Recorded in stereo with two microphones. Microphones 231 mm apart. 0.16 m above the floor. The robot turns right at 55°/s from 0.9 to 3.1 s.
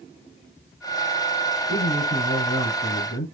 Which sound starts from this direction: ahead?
A man speaking, at 1.7 s.